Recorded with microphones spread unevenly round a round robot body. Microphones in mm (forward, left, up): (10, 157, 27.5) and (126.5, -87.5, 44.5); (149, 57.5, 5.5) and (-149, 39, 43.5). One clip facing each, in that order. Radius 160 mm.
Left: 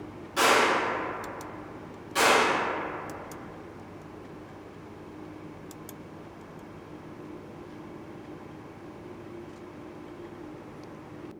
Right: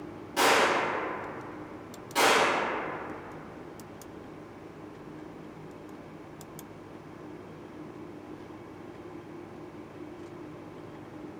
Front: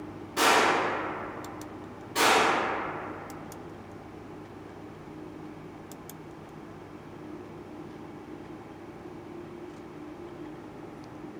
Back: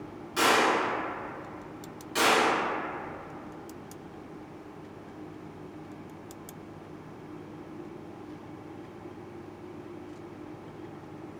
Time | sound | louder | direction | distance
0.4 | a gunshot | left 1 dB, even | 170° right | 1.5 m